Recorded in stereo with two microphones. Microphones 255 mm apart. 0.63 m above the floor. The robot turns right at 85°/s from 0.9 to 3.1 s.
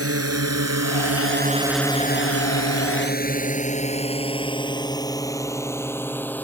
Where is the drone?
65° right (ahead or behind); by 6.4 s 5° left (ahead or behind).